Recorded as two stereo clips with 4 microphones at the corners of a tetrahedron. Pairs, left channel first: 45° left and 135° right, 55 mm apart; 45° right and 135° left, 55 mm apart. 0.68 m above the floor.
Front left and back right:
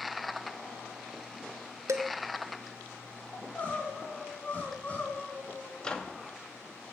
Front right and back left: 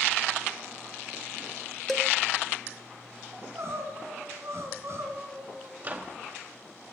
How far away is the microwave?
About 0.9 m.